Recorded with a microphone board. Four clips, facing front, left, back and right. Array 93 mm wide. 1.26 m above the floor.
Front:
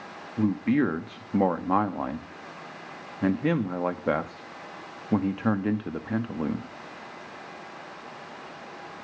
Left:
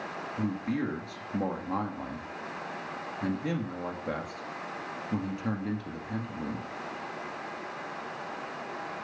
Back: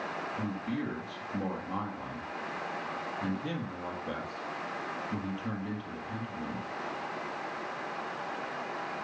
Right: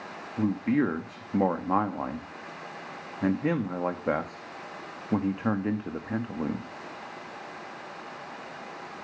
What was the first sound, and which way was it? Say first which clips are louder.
A man speaking: right 6 dB, front 15 dB; 30° right.